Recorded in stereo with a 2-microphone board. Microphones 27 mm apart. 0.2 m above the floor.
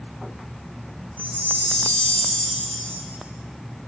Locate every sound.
1.2 s a chime: 65° left (ahead or behind), 4 m